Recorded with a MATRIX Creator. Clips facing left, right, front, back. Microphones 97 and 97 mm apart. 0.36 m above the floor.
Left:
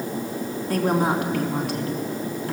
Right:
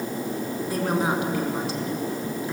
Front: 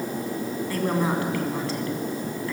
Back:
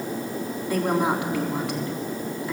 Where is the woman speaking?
110° left, 3.5 m.